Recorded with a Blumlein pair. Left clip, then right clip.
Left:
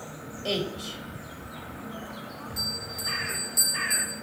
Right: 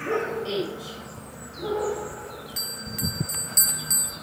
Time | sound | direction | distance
0.5 | a woman speaking | 20° left | 3 m
2.6 | a bell | 70° right | 1.2 m